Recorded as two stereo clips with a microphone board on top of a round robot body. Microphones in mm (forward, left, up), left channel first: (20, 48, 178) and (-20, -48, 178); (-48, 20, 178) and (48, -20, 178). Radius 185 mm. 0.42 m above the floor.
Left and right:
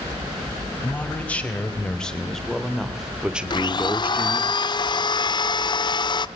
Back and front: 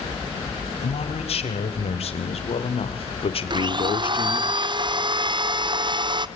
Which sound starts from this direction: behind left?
A man speaking, at 0.8 s.